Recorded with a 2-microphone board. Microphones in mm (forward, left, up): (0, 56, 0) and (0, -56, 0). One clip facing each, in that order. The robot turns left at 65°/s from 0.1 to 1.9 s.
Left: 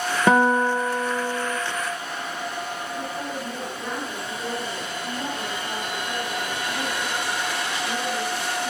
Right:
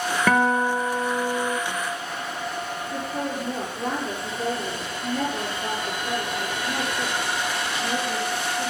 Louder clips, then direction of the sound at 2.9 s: Right 5 dB; 45° right (ahead or behind).